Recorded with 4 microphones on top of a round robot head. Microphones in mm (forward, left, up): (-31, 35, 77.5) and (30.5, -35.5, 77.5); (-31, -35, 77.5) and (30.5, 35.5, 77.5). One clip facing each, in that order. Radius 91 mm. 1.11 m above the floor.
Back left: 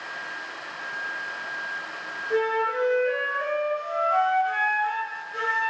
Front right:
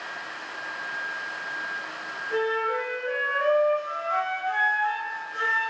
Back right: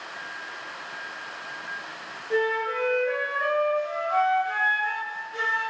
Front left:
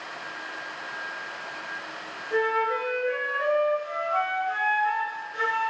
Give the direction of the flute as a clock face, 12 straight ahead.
5 o'clock.